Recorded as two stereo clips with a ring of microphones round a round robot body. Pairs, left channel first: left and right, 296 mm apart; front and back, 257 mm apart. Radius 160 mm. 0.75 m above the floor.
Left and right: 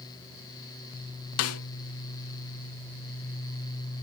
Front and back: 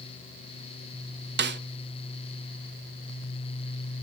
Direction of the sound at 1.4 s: 130° left.